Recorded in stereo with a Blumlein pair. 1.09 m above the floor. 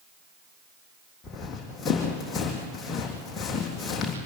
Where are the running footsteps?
20° left, 3.5 m.